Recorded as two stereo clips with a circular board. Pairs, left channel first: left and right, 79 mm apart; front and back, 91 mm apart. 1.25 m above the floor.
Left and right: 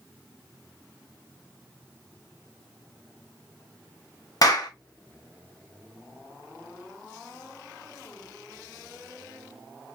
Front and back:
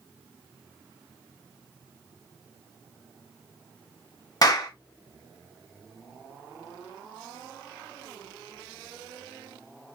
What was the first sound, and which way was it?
A clap, 50° left.